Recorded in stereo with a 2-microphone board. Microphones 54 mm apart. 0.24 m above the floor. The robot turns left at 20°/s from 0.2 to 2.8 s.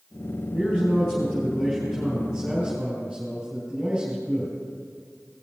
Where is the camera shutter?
No camera shutter in this recording.